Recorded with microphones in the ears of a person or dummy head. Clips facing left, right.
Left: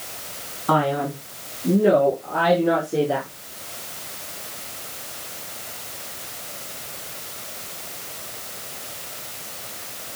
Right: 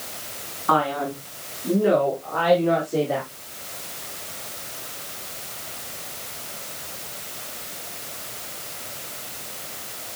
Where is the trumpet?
I don't hear a trumpet.